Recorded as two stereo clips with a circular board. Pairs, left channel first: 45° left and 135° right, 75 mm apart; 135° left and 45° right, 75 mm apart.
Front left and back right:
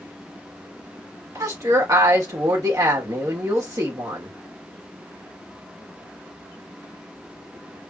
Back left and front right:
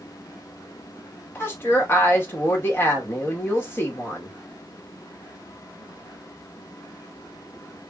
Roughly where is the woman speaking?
Behind.